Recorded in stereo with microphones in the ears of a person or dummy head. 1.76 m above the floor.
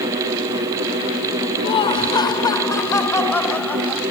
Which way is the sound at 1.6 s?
30° left (ahead or behind).